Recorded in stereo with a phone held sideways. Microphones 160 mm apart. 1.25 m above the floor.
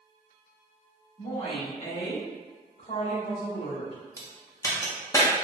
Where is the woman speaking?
40° left (ahead or behind), 1.3 m; by 4.0 s 80° left, 1.9 m.